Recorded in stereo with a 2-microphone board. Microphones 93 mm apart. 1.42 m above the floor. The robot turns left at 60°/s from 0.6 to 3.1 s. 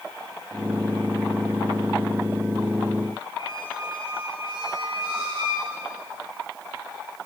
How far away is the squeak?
About 3.5 m.